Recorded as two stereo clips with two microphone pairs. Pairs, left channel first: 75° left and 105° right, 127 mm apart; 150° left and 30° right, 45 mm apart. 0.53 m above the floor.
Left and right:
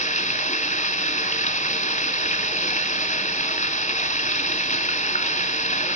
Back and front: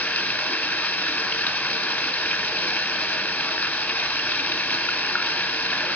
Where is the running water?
100° left, 2.5 m.